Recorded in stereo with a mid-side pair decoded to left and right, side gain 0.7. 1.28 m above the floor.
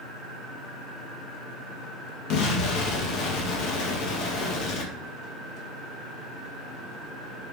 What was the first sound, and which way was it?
An explosion, 60° left.